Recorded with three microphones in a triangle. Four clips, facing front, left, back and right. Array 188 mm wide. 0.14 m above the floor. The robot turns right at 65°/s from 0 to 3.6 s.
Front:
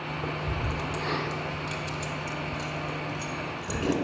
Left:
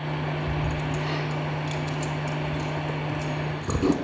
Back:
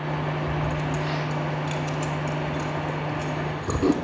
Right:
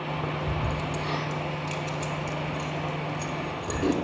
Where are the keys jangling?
75° right, 1.3 m; by 4.0 s 140° left, 1.3 m.